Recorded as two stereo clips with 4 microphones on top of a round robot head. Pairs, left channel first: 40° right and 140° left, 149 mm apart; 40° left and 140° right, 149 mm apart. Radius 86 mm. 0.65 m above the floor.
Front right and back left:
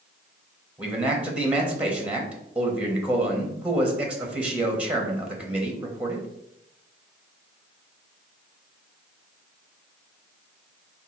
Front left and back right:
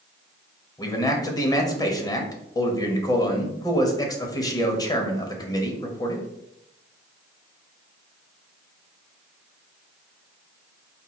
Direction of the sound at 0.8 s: 70° left.